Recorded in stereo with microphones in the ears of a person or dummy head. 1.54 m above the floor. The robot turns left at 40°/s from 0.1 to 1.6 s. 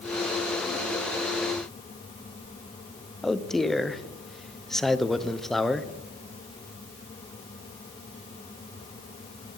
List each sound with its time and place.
3.2 s a man speaking: centre (ahead or behind), 0.8 m